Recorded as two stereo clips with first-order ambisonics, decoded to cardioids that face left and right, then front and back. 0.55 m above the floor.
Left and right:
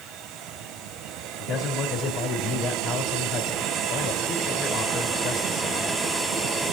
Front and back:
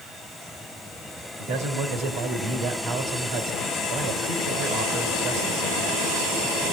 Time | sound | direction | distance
1.4 | a man speaking | 150° left | 3.5 m